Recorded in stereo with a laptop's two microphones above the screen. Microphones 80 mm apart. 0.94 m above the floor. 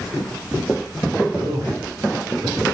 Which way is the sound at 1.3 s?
75° right (ahead or behind).